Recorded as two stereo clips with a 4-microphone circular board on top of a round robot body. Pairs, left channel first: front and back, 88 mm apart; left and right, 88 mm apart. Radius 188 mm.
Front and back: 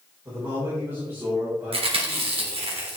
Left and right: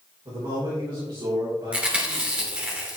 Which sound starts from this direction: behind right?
A man speaking, at 0.2 s.